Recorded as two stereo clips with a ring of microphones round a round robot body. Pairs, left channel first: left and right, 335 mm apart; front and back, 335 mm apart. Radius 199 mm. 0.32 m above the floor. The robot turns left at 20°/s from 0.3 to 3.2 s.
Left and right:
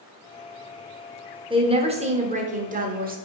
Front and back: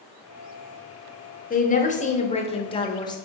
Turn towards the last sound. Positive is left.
turn(degrees=-65)